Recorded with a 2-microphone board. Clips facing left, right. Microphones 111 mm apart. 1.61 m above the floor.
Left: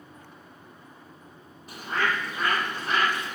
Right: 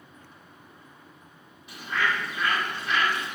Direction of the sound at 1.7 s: 40° left (ahead or behind).